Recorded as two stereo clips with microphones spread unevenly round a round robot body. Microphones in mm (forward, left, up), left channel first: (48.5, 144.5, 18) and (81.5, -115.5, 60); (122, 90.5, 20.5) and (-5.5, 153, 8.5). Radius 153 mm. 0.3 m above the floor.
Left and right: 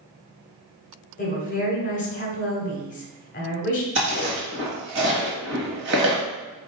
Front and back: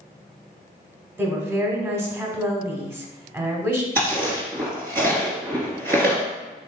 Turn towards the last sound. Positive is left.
turn(degrees=-135)